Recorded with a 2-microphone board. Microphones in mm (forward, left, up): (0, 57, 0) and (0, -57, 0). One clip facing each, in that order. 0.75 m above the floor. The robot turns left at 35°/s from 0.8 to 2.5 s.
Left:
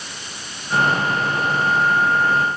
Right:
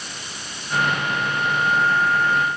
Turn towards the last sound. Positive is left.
No sound to turn to.